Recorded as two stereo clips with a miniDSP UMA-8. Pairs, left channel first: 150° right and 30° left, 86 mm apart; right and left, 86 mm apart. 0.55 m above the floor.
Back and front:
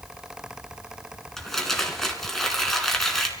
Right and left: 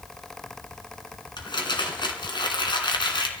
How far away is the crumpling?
About 2.5 m.